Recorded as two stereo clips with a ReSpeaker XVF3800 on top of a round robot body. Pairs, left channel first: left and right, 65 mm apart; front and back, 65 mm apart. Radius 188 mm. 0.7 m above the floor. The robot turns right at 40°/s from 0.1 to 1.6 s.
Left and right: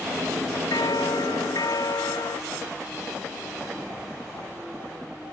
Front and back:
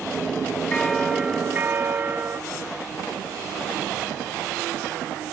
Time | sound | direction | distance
0.7 | a bell | 80° left | ?